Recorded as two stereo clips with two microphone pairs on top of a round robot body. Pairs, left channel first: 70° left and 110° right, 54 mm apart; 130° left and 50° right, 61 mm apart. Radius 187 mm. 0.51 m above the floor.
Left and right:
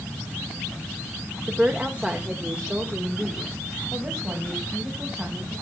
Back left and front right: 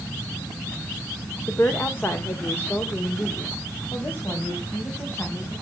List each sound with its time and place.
1.5 s a woman speaking: 175° right, 1.9 m